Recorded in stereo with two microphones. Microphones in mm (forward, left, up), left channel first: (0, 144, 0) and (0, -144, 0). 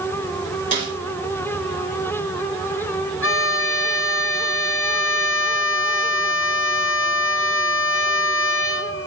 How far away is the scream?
No scream in this recording.